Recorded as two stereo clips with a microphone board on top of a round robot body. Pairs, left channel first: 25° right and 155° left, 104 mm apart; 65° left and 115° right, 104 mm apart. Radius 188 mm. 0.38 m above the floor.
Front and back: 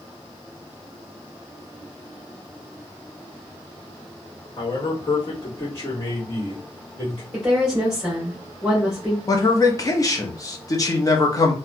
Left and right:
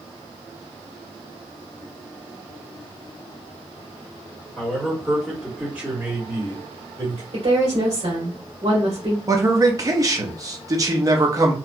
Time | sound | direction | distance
4.6 | a man speaking | 10° right | 1.7 m
7.3 | a woman speaking | 120° right | 1.6 m
9.3 | a man speaking | 65° right | 1.1 m